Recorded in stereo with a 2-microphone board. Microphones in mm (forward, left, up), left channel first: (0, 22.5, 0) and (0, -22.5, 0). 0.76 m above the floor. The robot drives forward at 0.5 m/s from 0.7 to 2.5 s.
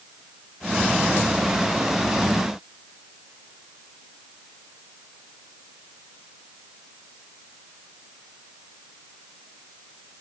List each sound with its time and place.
Only background noise.